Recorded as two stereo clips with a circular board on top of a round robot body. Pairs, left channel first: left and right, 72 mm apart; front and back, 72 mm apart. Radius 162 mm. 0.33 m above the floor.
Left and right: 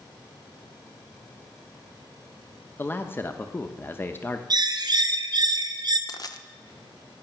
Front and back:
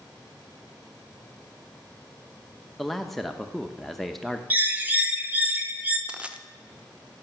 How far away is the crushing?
About 1.1 m.